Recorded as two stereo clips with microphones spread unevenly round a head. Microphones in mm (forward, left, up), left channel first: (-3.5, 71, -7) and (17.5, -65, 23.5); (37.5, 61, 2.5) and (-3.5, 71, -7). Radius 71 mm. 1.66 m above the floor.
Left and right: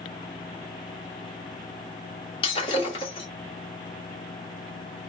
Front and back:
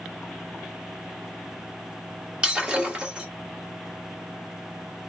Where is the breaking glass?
115° left, 1.1 m.